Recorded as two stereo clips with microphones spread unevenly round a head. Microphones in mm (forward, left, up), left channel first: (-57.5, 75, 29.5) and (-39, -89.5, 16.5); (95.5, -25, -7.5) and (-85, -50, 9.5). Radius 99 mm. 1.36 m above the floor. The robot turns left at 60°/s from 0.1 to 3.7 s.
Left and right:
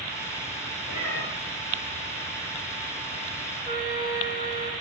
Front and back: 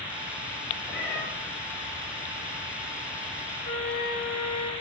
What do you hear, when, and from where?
0.9 s a cat meowing: 95° left, 4.5 m; by 1.2 s 75° left, 4.5 m
3.6 s a flute: 25° right, 1.7 m; by 4.7 s 30° right, 1.7 m